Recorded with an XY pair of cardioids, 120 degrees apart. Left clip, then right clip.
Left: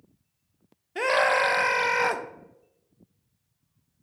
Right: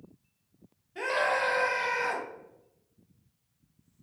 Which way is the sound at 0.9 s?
55° left.